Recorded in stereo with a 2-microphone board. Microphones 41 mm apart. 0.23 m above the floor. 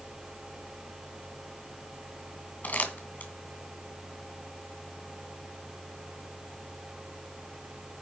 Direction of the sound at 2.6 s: 40° left (ahead or behind).